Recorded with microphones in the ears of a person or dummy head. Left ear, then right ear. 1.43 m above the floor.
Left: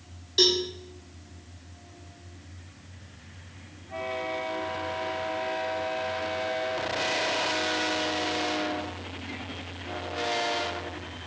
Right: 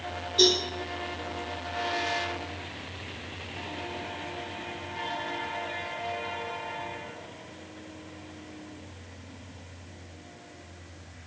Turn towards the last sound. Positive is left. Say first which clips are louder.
# even
turn(degrees=25)  # may be behind; listen again after turning